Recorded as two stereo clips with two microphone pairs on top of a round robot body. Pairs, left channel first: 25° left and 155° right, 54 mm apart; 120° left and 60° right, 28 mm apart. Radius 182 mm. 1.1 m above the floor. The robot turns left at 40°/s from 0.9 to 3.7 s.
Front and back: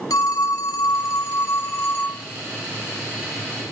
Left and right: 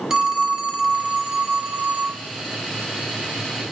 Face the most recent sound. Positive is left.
turn(degrees=-100)